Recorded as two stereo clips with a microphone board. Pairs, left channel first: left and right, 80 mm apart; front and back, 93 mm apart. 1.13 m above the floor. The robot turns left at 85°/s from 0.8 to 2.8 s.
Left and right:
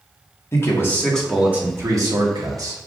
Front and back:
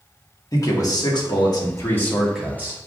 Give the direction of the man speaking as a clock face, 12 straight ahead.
11 o'clock.